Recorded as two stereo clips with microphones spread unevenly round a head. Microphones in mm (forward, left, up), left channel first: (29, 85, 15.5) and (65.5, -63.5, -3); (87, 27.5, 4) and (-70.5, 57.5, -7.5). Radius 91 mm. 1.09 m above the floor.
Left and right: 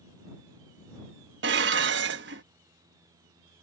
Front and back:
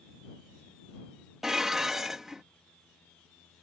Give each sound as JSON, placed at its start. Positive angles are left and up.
{"t": 1.4, "sound": "dishes clattering", "azimuth_deg": -105}